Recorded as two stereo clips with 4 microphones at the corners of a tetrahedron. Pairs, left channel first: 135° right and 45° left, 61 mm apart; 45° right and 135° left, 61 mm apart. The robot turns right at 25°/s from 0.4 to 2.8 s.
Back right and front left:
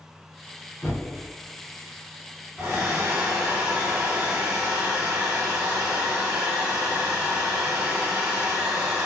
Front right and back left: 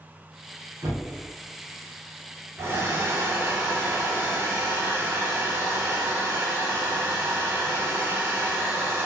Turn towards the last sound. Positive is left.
turn(degrees=115)